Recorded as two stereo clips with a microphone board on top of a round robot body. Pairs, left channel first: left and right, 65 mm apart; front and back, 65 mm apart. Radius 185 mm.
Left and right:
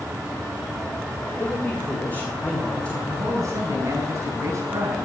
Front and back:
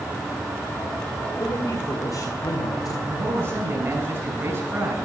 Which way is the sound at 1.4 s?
35° left.